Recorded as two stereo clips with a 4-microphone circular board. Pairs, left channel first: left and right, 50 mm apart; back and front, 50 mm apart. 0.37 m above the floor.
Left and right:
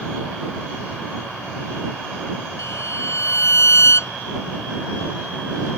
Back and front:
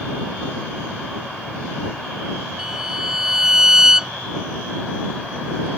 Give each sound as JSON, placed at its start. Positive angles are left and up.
{"t": 2.6, "sound": "a violin", "azimuth_deg": 80}